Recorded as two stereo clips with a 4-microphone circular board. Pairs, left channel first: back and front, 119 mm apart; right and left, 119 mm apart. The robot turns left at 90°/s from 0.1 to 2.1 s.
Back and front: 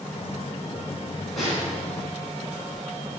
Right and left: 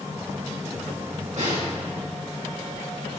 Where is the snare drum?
95° left, 3 m; by 1.7 s 65° left, 3 m.